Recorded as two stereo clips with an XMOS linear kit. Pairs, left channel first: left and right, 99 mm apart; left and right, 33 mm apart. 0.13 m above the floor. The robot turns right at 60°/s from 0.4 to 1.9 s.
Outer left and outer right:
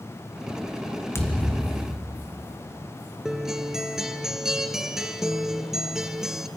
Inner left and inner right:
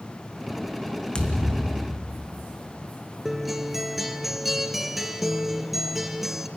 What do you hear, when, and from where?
1.1 s a thud: 155° left, 1.5 m; by 2.5 s 160° right, 1.5 m
3.2 s a guitar: 5° right (ahead or behind), 0.8 m